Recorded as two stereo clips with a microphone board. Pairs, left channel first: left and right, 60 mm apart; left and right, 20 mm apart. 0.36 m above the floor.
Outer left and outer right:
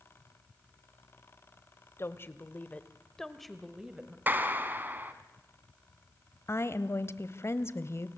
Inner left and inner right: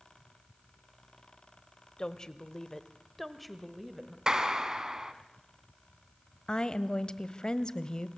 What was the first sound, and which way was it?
A woman speaking, 45° left (ahead or behind).